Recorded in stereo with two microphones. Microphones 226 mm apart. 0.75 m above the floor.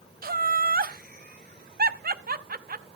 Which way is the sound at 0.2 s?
40° right (ahead or behind).